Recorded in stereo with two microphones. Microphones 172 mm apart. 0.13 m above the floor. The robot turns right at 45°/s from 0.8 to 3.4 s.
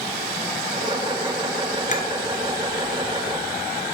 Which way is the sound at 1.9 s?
50° left (ahead or behind).